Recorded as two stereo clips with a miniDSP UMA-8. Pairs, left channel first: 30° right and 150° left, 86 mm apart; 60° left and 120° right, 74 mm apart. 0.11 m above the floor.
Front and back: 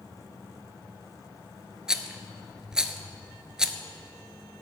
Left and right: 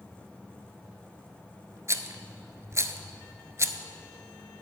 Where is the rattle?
130° right, 0.6 m.